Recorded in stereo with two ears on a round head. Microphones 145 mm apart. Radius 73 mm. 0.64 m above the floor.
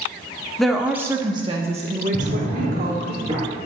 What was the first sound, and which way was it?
A woman speaking, 5° left (ahead or behind).